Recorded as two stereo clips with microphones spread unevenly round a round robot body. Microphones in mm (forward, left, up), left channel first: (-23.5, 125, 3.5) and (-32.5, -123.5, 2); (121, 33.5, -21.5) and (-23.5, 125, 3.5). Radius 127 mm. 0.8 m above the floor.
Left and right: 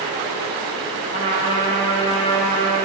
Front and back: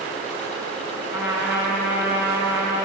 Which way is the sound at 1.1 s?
30° right.